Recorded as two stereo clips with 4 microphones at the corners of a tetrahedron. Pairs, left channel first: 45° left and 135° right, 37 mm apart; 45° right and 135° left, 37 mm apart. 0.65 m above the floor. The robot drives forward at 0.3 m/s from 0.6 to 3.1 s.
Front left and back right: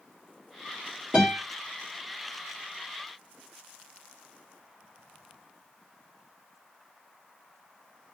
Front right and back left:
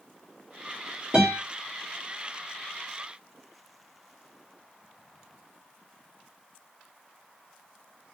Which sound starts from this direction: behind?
A guitar, at 1.1 s.